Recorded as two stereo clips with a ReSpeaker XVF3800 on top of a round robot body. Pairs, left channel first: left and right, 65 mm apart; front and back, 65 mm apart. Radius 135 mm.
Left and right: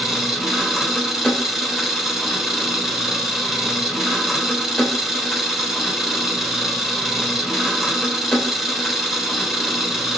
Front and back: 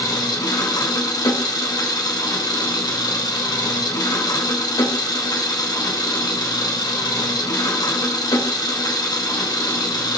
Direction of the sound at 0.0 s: 5° right.